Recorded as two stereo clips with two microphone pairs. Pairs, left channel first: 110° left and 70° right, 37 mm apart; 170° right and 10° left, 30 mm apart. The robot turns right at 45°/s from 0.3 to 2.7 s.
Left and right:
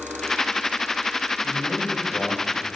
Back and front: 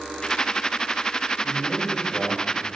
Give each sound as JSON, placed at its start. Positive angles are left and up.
{"t": 1.4, "sound": "a man speaking", "azimuth_deg": 115, "distance_m": 2.5}